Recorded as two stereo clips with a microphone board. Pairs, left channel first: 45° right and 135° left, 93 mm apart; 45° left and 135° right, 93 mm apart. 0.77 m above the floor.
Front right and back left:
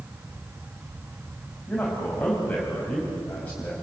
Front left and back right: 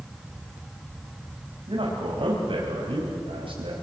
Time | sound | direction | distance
1.7 | a man speaking | 120° right | 4.5 m